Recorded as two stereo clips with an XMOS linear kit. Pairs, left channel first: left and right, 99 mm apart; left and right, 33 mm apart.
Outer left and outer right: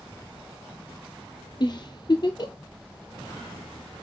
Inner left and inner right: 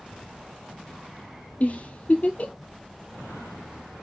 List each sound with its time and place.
1.6 s a giggle: 50° left (ahead or behind), 0.9 m